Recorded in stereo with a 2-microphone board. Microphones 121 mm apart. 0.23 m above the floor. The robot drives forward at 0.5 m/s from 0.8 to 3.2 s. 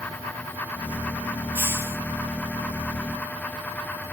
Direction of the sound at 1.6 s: 15° right (ahead or behind).